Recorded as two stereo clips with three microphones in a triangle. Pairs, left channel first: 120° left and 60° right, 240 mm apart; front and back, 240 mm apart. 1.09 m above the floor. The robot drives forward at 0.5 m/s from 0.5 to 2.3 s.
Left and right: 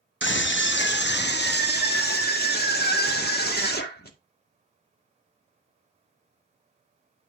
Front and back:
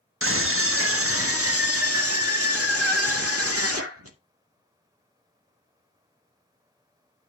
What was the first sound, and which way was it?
A scream, 155° left.